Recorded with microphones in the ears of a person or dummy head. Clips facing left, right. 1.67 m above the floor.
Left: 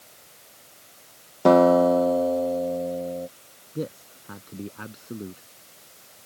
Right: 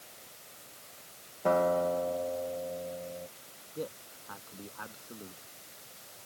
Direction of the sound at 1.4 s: 80° left.